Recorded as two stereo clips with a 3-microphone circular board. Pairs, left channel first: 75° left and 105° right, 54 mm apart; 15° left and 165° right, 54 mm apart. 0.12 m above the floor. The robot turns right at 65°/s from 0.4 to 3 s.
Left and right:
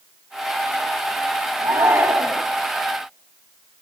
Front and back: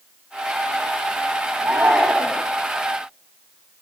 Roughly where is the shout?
Right.